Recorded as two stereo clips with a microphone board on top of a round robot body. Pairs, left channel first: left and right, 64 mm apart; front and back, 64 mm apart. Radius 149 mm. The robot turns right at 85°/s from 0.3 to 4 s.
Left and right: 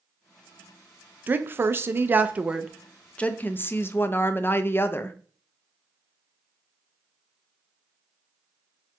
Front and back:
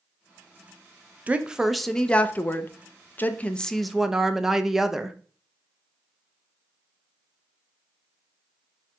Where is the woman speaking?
130° right, 0.5 m; by 5.2 s 100° left, 0.5 m.